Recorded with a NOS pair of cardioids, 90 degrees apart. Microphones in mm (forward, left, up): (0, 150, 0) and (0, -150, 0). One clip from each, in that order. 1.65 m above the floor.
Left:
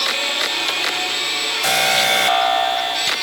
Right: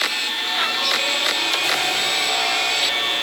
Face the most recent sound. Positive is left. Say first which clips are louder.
# left 4 dB
turn(degrees=70)